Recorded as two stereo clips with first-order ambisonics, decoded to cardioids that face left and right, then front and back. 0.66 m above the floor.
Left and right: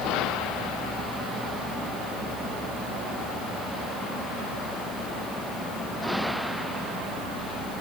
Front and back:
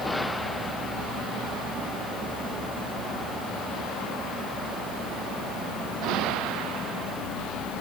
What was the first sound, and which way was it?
Only background noise.